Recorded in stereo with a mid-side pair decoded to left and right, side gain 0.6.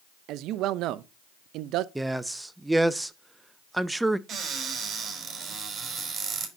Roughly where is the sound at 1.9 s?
Ahead.